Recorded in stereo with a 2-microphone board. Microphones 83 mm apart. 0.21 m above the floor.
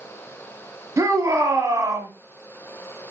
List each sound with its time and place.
1.0 s a shout: 40° right (ahead or behind), 1.2 m